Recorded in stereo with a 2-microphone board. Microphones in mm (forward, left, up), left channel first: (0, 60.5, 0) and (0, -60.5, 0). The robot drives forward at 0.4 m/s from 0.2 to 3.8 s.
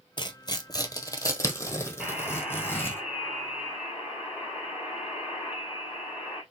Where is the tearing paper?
40° left (ahead or behind), 0.8 m; by 3.0 s 15° left (ahead or behind), 1.8 m.